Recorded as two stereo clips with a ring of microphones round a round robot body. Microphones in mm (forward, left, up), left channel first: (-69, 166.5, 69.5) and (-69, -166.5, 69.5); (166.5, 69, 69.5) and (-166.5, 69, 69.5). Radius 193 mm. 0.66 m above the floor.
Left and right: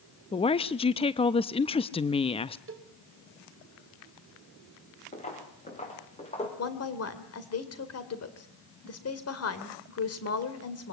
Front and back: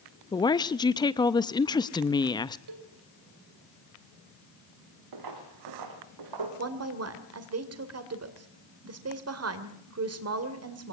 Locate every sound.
0.3 s a woman speaking: 55° left, 0.6 m
2.7 s a cowbell: 145° right, 2 m
5.1 s footsteps: 160° left, 5 m
6.6 s a woman speaking: 135° left, 2.5 m